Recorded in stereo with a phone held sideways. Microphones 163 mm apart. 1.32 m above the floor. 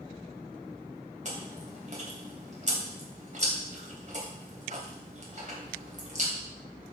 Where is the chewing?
50° right (ahead or behind), 3 m.